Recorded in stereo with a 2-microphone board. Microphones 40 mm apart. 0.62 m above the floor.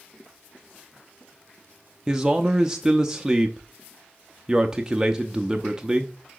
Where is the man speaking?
15° right (ahead or behind), 0.6 m.